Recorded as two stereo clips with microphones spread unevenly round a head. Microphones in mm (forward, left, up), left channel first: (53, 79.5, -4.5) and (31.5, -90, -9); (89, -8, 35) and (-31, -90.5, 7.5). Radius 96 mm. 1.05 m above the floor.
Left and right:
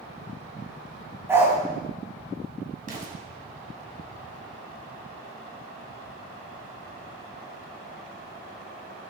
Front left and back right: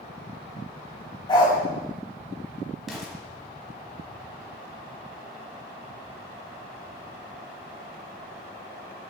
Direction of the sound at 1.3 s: 20° right.